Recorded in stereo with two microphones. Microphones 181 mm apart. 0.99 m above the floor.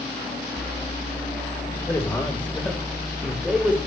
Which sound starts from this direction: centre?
A man speaking, at 1.9 s.